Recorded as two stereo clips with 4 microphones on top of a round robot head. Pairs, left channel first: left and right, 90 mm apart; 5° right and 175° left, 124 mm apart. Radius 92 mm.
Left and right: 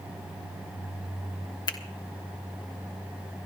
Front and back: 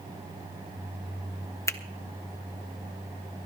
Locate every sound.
1.7 s a finger snap: 60° left, 1.2 m